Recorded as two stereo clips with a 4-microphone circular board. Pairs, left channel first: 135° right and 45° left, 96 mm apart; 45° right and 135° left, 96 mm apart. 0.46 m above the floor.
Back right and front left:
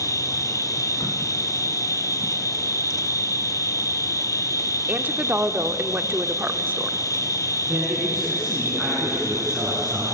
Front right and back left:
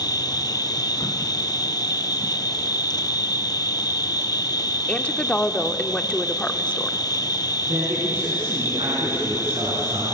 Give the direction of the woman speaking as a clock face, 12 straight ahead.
12 o'clock.